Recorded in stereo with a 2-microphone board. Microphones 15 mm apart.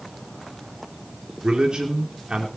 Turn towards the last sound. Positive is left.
turn(degrees=-65)  # may be behind; listen again after turning